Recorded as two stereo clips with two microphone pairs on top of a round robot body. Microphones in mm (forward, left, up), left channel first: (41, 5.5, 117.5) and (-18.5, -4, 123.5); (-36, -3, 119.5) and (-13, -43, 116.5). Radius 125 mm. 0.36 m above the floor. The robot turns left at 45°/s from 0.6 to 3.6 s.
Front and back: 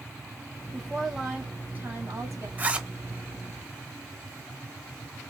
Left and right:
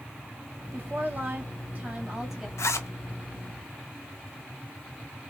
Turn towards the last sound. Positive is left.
turn(degrees=80)